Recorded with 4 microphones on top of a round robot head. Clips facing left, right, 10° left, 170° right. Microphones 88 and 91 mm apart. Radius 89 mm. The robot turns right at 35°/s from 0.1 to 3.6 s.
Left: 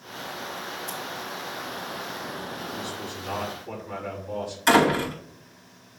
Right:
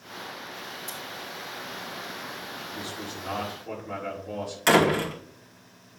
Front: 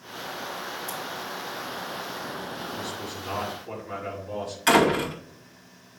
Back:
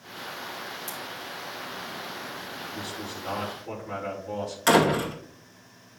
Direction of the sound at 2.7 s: 140° right.